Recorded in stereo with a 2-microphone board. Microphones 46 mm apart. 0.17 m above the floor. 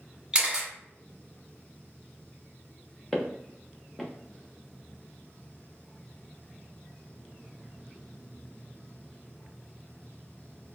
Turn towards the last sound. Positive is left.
turn(degrees=5)  # may be behind; listen again after turning